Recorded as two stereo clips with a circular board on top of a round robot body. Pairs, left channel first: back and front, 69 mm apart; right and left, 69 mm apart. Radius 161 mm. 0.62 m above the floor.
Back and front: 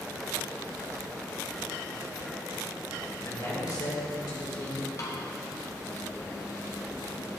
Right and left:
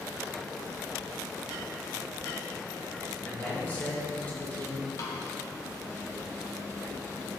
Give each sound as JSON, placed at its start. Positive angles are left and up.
{"t": 3.2, "sound": "a man speaking", "azimuth_deg": -155, "distance_m": 2.5}
{"t": 5.0, "sound": "a snare drum", "azimuth_deg": -130, "distance_m": 0.8}